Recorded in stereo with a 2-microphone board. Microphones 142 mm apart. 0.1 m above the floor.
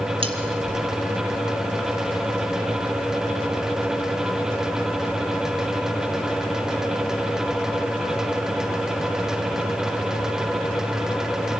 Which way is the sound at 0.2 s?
40° right (ahead or behind).